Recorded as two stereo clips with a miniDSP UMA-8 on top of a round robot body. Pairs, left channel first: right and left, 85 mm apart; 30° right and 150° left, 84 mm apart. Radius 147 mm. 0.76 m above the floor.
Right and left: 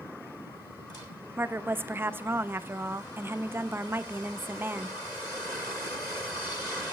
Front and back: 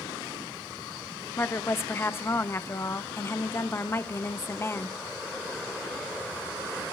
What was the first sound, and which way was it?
A woman speaking, 30° left.